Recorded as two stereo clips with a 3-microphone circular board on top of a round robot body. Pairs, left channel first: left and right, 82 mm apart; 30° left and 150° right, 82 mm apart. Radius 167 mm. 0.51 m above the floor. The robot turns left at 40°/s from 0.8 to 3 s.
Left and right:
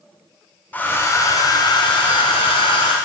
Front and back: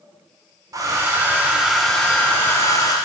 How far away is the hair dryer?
About 0.9 m.